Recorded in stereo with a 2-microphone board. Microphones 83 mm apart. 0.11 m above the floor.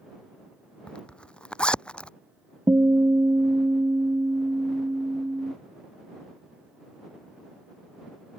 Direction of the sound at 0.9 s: 10° left (ahead or behind).